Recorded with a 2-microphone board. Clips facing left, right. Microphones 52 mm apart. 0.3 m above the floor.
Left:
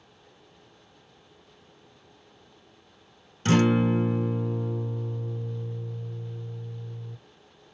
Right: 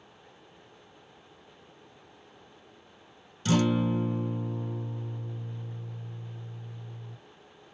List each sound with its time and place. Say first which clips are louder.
3.5 s a guitar: left 4 dB; 45° left (ahead or behind), 0.7 m